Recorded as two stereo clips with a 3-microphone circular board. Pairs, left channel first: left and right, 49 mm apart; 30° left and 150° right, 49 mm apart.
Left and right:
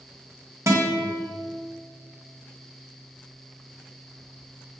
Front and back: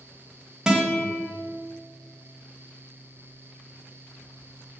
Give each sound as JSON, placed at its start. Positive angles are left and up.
{"t": 0.7, "sound": "a guitar", "azimuth_deg": -75, "distance_m": 1.9}